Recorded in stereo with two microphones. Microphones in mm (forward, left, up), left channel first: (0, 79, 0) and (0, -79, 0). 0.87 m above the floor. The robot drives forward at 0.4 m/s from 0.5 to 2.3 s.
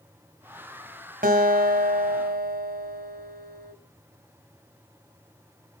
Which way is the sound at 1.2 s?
65° right (ahead or behind).